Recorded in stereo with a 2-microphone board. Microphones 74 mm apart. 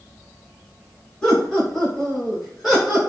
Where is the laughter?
20° left (ahead or behind), 1.5 m; by 3.1 s 10° right (ahead or behind), 1.4 m.